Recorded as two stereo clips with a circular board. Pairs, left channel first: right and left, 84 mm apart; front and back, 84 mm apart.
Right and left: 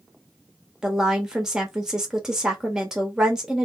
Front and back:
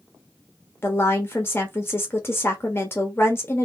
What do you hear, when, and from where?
0.8 s a woman speaking: 15° left, 0.9 m